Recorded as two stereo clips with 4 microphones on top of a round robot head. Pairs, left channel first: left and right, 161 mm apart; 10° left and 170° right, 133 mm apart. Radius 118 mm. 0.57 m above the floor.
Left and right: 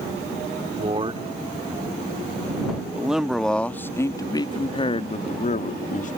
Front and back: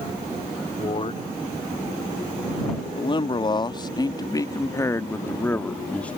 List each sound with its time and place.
0.8 s a man speaking: 40° right; by 6.2 s 90° left